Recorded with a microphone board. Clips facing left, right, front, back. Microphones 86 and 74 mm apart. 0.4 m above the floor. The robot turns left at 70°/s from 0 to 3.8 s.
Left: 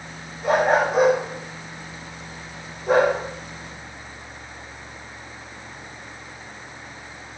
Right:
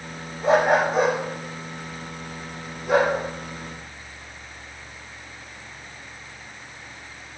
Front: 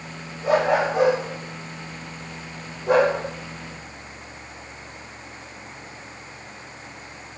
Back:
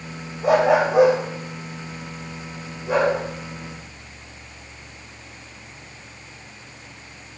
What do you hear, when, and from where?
0.4 s a dog barking: 150° right, 9.5 m; by 3.1 s 20° left, 9.5 m